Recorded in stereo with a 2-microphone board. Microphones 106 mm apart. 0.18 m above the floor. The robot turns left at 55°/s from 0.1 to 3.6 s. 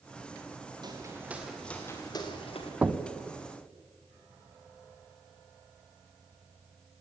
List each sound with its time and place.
0.8 s footsteps: 45° right (ahead or behind), 4.5 m; by 2.7 s 75° left (ahead or behind), 4 m
2.8 s knocking: 15° right (ahead or behind), 0.8 m; by 3.0 s 20° right (ahead or behind), 0.8 m